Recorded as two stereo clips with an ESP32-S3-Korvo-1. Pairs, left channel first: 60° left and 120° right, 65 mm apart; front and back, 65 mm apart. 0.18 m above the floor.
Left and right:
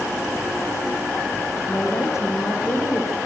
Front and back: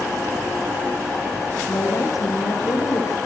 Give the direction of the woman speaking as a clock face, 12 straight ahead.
11 o'clock.